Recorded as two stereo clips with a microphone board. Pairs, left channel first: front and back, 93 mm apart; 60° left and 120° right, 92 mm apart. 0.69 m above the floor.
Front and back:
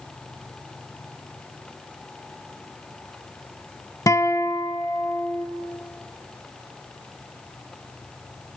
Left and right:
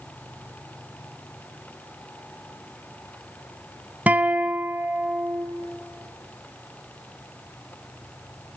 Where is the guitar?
50° right, 0.9 m.